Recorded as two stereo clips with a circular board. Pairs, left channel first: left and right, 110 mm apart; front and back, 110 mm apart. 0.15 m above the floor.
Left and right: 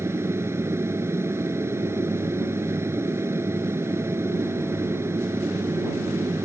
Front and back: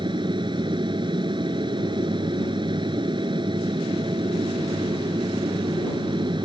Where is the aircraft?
150° right.